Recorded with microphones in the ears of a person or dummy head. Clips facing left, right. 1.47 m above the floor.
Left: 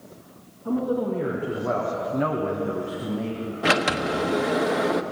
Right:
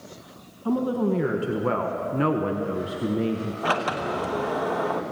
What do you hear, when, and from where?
0.7 s a woman speaking: 70° right (ahead or behind), 1.9 m; by 3.5 s 40° right (ahead or behind), 1.6 m
3.6 s a sliding door: 30° left (ahead or behind), 1.2 m